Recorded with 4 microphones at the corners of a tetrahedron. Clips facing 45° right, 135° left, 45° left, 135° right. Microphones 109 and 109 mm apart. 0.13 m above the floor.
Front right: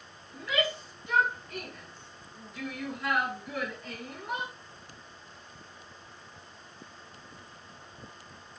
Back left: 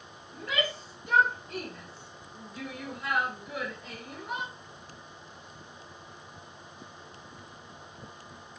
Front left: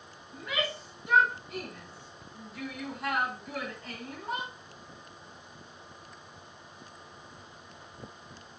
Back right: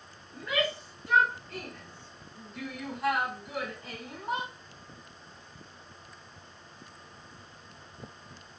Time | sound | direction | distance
0.3 | a shout | 105° left | 2.5 m